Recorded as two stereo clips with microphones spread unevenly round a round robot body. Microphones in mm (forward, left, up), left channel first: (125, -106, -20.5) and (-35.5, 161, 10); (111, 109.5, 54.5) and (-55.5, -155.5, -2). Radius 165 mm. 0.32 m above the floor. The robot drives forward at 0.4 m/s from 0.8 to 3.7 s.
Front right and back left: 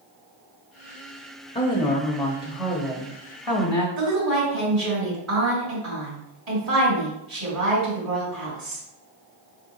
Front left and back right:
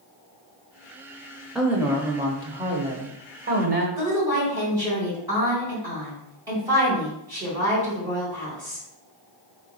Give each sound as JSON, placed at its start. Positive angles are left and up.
{"t": 1.6, "sound": "a woman speaking", "azimuth_deg": -65, "distance_m": 0.8}
{"t": 4.0, "sound": "a woman speaking", "azimuth_deg": 170, "distance_m": 2.0}